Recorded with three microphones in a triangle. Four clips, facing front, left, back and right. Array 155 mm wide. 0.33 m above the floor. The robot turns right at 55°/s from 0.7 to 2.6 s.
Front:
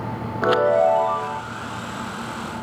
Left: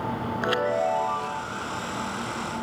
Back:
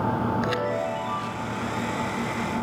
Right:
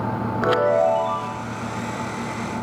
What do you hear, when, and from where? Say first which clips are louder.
0.4 s a chime: right 7 dB, front 9 dB; 35° right, 1.2 m; by 1.4 s 5° left, 1.2 m